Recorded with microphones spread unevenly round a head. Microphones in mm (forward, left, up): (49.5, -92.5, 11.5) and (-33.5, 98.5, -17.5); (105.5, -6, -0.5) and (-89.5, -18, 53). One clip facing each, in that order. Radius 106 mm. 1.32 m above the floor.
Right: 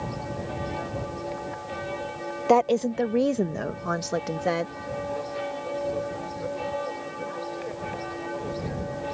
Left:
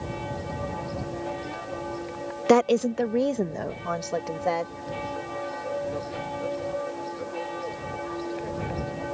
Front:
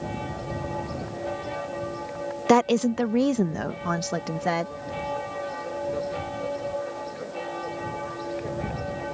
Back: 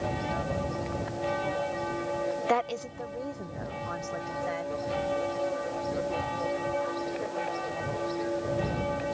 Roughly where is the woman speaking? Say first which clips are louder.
Left 2 dB, front 10 dB; ahead left.